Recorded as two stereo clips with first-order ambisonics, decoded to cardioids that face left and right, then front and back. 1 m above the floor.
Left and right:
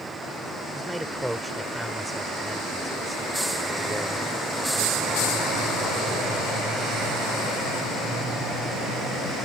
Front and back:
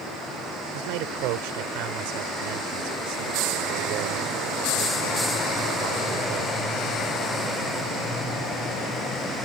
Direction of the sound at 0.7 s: Straight behind.